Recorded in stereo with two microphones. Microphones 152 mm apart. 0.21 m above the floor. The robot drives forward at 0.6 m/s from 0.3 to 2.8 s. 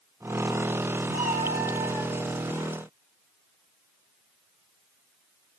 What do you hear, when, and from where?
1.1 s a cat meowing: 55° right (ahead or behind), 1.8 m; by 2.2 s 40° right (ahead or behind), 2 m